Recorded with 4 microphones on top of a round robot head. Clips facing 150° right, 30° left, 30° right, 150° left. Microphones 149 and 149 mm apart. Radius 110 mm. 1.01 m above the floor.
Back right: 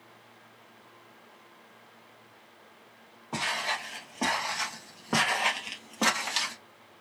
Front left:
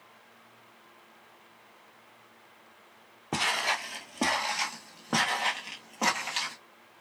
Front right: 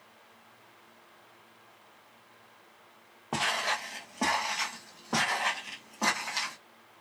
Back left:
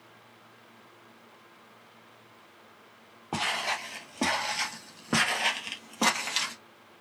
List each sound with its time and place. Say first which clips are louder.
3.3 s footsteps: front left 2 dB, even; 60° left, 1.4 m; by 6.5 s 165° left, 1.6 m